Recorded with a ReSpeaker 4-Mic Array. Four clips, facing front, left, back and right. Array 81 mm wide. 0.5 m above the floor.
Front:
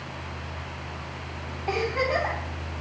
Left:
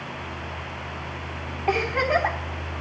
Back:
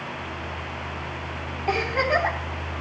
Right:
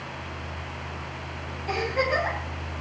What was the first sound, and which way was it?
A giggle, 105° left.